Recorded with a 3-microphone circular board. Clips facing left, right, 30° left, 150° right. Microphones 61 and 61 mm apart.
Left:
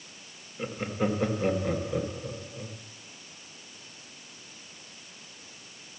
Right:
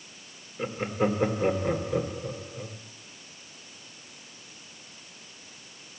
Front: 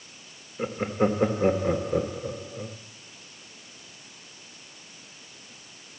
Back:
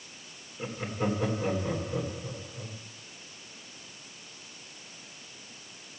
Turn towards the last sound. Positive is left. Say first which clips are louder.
# right 3 dB, front 7 dB
turn(degrees=-10)